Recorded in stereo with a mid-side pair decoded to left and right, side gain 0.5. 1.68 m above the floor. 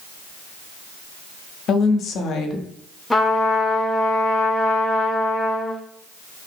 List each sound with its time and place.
1.7 s a woman speaking: 60° left, 0.6 m
3.1 s a trumpet: 10° left, 0.6 m